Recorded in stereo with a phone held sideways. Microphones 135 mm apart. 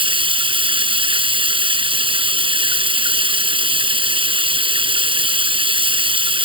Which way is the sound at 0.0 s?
45° right (ahead or behind).